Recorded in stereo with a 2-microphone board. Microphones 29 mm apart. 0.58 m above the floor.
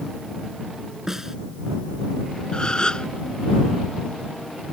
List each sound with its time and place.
1.1 s a snare drum: 15° right (ahead or behind)
2.5 s a gasp: 30° left (ahead or behind)